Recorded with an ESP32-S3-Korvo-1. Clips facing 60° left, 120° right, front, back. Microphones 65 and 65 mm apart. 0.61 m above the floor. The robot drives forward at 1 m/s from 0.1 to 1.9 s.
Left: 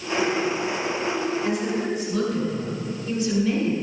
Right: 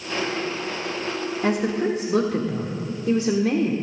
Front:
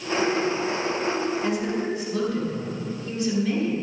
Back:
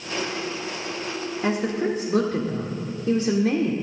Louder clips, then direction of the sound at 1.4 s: Right 2 dB, back 2 dB; 125° right.